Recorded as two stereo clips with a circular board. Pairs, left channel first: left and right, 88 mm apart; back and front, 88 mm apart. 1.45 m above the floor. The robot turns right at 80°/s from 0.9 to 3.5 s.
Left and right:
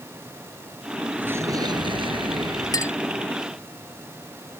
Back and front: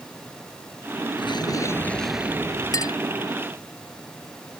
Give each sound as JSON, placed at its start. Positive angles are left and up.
{"t": 1.2, "sound": "an explosion", "azimuth_deg": -165}
{"t": 2.7, "sound": "a clink", "azimuth_deg": 135}